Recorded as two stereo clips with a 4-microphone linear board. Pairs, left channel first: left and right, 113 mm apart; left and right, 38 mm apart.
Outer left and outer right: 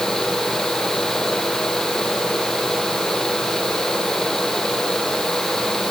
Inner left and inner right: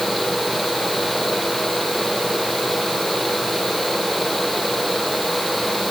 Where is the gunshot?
I don't hear a gunshot.